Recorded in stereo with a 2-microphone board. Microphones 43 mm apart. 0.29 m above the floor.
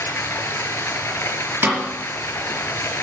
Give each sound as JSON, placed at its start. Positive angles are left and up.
{"t": 0.0, "sound": "running water", "side_deg": 70, "distance_m": 1.6}
{"t": 1.6, "sound": "a snare drum", "side_deg": -45, "distance_m": 4.5}